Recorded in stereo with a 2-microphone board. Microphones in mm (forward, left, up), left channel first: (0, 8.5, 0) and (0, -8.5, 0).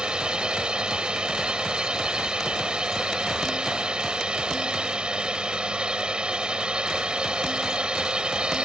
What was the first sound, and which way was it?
A drone, 65° right (ahead or behind).